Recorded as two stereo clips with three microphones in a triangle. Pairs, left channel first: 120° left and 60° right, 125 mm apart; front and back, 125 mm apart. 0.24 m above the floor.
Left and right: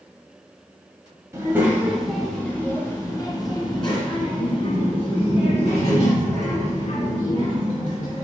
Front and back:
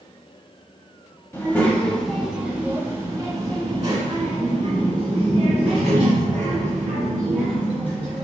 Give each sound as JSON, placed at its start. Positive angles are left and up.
{"t": 1.3, "sound": "a child speaking", "azimuth_deg": -40, "distance_m": 1.0}